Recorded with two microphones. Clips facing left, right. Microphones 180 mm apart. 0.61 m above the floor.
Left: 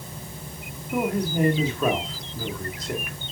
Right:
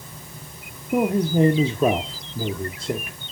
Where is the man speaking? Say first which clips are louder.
Right 5 dB; 30° right (ahead or behind), 1.1 m.